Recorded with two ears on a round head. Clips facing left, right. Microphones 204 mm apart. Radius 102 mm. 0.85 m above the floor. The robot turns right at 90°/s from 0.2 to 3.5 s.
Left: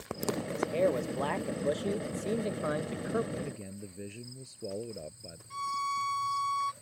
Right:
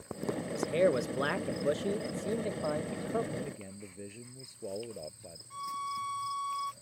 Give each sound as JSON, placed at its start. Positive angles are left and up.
{"t": 0.5, "sound": "a man speaking", "side_deg": -20}
{"t": 3.3, "sound": "a man speaking", "side_deg": 0}
{"t": 5.5, "sound": "a violin", "side_deg": 35}